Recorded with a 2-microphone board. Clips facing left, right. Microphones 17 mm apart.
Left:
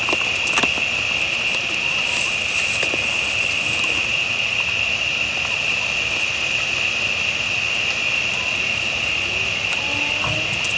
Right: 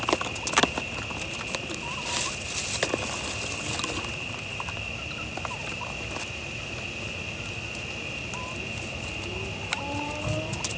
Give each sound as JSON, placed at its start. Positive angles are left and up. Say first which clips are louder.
{"t": 0.0, "sound": "an insect", "louder": "left 9 dB", "side_deg": 65, "distance_m": 1.3}